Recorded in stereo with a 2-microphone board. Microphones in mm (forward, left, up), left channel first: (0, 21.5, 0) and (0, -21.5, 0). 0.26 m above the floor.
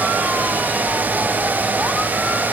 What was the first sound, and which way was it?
Only background noise.